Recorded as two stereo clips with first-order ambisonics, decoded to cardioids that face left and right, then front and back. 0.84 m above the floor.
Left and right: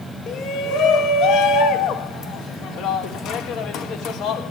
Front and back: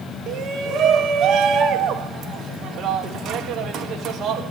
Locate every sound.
0.3 s a shout: 130° left, 3 m